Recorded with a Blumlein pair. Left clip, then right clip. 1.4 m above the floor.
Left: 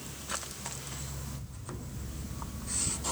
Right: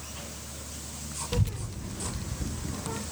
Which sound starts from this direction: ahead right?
A child speaking, at 1.3 s.